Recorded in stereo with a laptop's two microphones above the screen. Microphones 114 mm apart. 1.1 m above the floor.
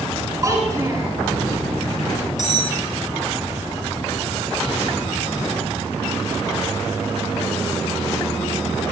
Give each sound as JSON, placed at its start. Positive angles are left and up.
{"t": 0.4, "sound": "a child speaking", "side_deg": -30, "distance_m": 7.0}
{"t": 2.4, "sound": "cutlery clinking", "side_deg": 85, "distance_m": 5.0}